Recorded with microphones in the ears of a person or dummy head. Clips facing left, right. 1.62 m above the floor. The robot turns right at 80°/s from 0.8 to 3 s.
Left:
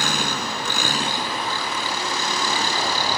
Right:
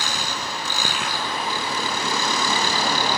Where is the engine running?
135° left; by 3.2 s 50° right.